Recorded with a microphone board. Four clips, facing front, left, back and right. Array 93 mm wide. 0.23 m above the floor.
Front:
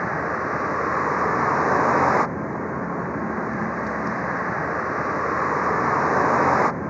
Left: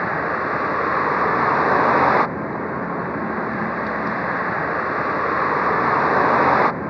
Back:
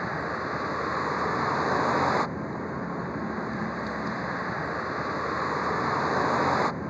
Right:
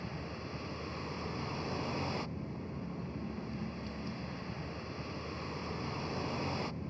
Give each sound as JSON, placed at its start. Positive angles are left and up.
{"t": 0.0, "sound": "a vehicle", "azimuth_deg": 65}